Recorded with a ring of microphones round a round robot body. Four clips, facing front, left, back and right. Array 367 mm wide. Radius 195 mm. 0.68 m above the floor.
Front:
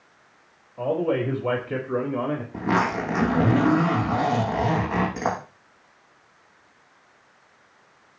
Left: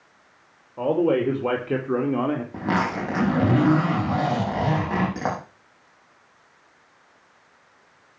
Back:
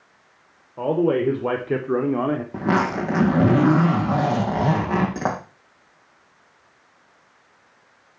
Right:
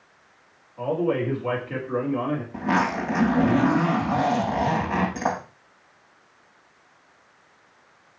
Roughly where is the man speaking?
Behind left.